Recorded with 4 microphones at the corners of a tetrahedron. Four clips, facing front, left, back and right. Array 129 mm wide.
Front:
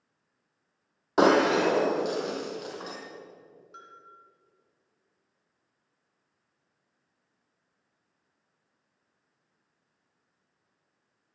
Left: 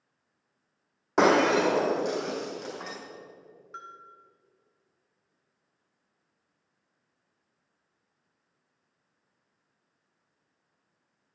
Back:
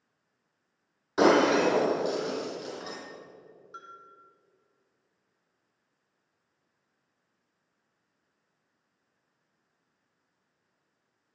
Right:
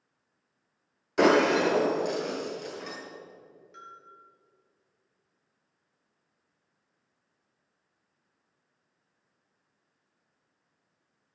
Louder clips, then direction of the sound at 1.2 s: Even, even; 55° left.